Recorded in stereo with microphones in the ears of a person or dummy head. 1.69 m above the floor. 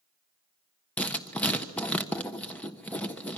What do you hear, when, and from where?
1.0 s writing: 10° left (ahead or behind), 1.3 m